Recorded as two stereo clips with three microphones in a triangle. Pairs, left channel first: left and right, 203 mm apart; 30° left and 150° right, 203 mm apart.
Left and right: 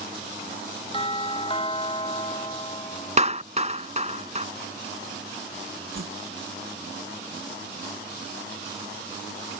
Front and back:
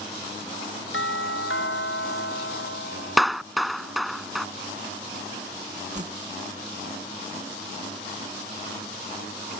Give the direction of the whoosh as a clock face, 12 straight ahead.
3 o'clock.